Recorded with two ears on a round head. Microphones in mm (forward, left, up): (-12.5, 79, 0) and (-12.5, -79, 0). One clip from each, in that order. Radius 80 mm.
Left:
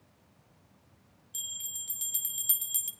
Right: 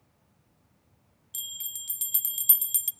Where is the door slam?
I don't hear a door slam.